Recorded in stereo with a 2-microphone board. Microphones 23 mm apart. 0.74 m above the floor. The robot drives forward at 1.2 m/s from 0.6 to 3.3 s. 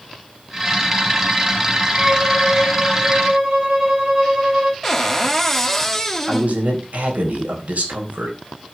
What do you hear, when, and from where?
2.0 s a violin: 50° right (ahead or behind), 4 m; by 4.7 s 35° right (ahead or behind), 5 m
4.8 s a cupboard door: 10° left (ahead or behind), 1.5 m
6.3 s a man speaking: 75° right (ahead or behind), 4 m